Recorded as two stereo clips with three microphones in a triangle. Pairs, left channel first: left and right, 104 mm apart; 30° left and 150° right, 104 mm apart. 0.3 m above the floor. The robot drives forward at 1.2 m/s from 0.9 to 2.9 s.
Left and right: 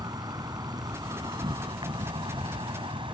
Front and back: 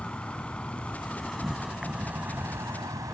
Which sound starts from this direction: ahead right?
An insect, at 0.0 s.